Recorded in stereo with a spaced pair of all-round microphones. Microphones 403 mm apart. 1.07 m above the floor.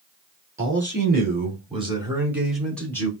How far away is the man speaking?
About 3 m.